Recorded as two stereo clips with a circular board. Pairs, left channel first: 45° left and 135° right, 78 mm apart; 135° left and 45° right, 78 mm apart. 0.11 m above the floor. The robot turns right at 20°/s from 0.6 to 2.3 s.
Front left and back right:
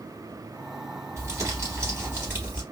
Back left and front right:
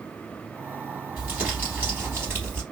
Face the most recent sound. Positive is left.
turn(degrees=-85)